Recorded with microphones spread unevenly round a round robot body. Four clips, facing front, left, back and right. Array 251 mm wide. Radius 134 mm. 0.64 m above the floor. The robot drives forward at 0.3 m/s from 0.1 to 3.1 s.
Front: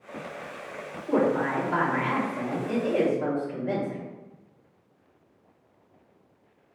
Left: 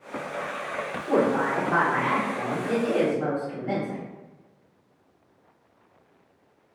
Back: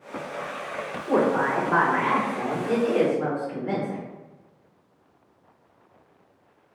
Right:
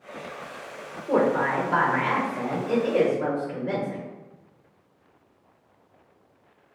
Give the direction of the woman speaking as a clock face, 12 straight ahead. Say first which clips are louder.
Right 1 dB, back 2 dB; 7 o'clock.